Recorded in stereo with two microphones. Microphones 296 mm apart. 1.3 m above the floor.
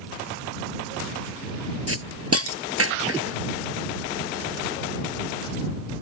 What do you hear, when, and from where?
1.9 s a hiss: 50° right (ahead or behind)